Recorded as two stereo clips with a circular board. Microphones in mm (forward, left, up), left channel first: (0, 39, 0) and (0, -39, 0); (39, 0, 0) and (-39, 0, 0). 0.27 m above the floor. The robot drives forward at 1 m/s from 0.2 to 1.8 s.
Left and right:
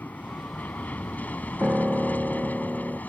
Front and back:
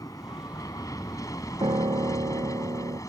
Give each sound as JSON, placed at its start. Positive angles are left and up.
{"t": 0.0, "sound": "an aircraft", "azimuth_deg": 25}
{"t": 1.6, "sound": "a piano", "azimuth_deg": -165}